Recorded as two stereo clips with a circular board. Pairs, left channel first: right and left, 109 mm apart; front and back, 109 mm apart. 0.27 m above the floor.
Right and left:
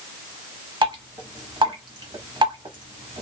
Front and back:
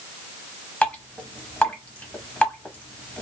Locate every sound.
0.8 s dripping: 75° left, 0.8 m